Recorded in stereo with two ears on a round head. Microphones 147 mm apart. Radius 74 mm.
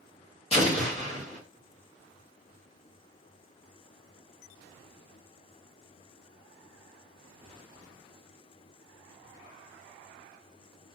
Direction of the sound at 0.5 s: 40° left (ahead or behind).